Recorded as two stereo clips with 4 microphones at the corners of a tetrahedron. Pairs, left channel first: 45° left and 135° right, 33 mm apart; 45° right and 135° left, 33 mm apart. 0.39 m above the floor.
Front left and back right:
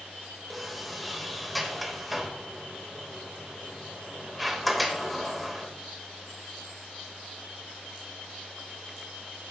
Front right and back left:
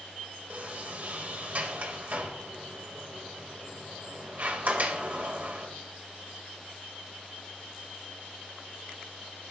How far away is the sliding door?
About 1.3 m.